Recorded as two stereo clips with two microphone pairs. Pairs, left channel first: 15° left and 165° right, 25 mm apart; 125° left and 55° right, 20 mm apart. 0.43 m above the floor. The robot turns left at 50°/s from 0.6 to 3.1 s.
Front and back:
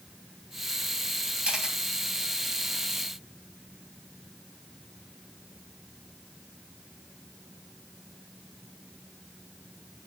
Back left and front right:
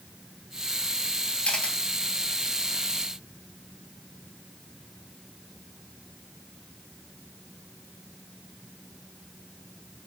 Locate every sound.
1.4 s a camera shutter: 150° left, 3.5 m; by 1.8 s 135° left, 3.5 m